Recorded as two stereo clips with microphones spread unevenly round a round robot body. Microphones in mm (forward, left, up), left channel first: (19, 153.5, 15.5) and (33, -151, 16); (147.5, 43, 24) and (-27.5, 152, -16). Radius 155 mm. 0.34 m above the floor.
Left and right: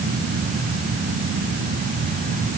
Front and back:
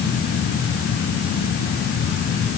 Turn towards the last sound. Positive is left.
No sound to turn to.